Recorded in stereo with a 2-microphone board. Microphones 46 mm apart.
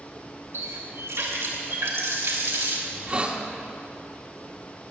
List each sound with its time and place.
0.5 s a running tap: 85° right, 2.5 m
2.9 s a hiss: 30° right (ahead or behind), 1.3 m